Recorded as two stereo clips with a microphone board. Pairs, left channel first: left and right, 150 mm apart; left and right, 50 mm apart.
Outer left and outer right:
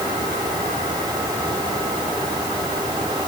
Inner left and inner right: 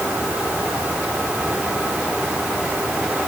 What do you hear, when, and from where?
Only background noise.